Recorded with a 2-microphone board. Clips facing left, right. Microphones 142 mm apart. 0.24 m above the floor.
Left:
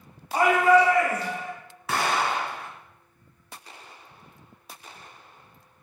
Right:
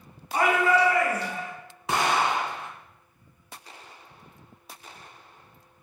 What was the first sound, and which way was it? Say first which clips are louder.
A shout: left 4 dB; 40° left (ahead or behind).